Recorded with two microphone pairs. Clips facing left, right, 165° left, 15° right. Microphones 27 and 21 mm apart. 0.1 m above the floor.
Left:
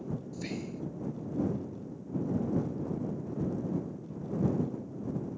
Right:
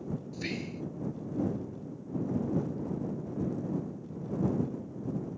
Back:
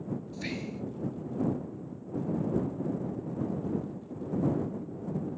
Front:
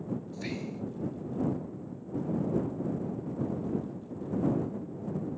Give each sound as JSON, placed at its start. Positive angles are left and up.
{"t": 0.3, "sound": "whispering", "azimuth_deg": -125}